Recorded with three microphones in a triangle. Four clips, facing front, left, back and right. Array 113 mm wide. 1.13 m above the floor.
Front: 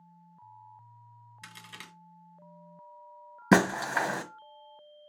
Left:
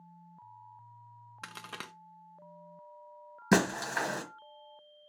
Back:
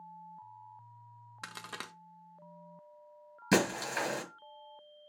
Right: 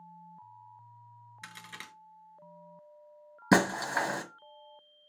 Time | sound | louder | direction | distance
1.4 | a crack | left 4 dB, back 6 dB | 135° left | 0.6 m
3.5 | breaking glass | right 2 dB, front 6 dB | 25° right | 1.2 m